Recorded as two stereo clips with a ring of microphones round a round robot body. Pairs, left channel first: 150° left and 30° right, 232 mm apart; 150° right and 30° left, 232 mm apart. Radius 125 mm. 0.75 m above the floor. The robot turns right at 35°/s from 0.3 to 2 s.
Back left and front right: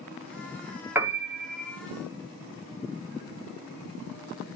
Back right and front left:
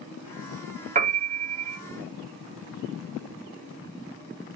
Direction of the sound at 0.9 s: 45° left.